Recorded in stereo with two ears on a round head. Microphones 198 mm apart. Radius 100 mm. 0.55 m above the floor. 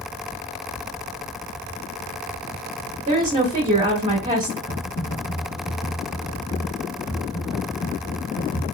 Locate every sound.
3.1 s a woman speaking: 25° right (ahead or behind), 0.7 m
4.7 s typing on a keyboard: 20° left (ahead or behind), 1.0 m